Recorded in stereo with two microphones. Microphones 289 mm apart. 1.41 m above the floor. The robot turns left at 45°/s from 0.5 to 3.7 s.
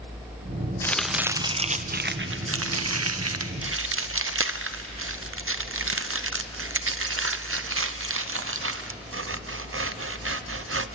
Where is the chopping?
10° left (ahead or behind), 0.6 m; by 11.0 s 50° right (ahead or behind), 0.6 m.